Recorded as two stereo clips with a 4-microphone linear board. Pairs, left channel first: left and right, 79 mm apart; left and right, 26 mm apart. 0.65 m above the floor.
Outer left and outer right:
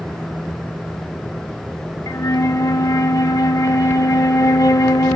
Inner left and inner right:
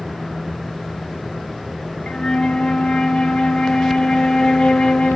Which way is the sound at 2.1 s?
50° left (ahead or behind).